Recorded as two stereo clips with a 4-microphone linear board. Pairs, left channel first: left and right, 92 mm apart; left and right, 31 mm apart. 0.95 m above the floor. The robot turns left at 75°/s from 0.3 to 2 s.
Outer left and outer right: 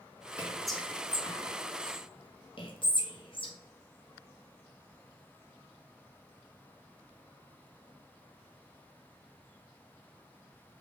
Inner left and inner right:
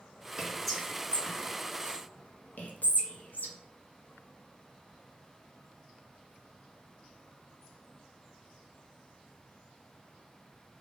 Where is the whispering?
20° right (ahead or behind), 0.9 m; by 3.5 s 60° left (ahead or behind), 0.9 m.